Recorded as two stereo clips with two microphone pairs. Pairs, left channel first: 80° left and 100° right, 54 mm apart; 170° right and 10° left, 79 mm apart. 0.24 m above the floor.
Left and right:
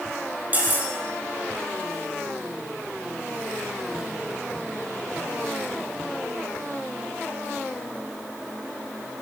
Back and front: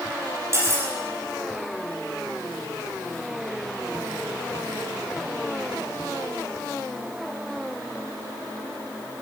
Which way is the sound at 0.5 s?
40° right.